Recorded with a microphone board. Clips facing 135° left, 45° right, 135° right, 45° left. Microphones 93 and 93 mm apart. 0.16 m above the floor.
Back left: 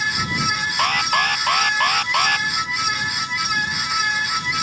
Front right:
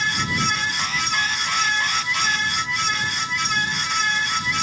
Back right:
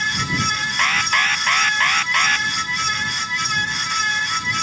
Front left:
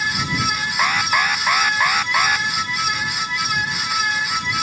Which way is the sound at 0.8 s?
120° left.